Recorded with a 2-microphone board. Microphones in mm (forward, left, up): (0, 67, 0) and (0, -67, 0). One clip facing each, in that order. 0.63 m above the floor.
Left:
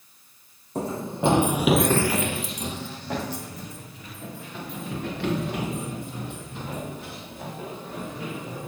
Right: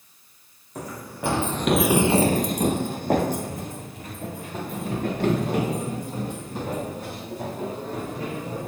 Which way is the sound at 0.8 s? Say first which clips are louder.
Left 6 dB; 30° left (ahead or behind).